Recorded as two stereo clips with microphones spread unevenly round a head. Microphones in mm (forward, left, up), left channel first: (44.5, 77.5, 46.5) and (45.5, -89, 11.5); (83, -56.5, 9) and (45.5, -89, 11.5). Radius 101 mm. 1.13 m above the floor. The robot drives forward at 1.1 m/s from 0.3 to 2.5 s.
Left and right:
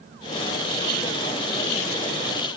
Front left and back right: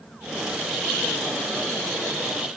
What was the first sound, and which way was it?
Only background noise.